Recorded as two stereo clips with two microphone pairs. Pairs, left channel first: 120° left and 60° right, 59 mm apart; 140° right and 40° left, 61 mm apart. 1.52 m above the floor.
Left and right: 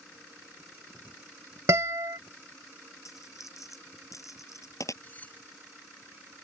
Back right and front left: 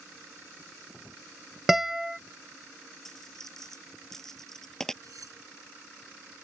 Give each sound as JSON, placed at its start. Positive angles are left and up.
{"t": 1.7, "sound": "a guitar", "azimuth_deg": -40}
{"t": 3.0, "sound": "a dropped coin", "azimuth_deg": 140}
{"t": 5.0, "sound": "cutlery clinking", "azimuth_deg": 55}